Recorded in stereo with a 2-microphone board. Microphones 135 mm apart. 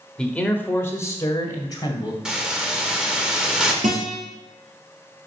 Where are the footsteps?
No footsteps in this recording.